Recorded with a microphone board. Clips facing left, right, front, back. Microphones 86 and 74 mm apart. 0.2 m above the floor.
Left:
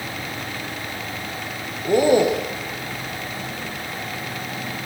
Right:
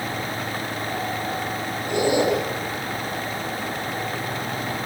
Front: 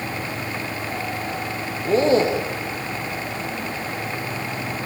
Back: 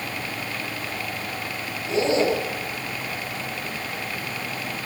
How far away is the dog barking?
No dog barking in this recording.